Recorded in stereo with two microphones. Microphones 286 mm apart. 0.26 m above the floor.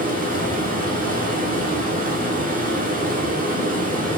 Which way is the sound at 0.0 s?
30° right (ahead or behind).